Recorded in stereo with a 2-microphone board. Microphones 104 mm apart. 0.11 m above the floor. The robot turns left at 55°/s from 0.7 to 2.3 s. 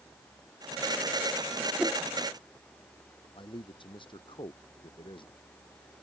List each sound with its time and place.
1.8 s a whoosh: 10° right (ahead or behind); by 2.0 s 20° right (ahead or behind)
3.4 s a man speaking: 50° left (ahead or behind)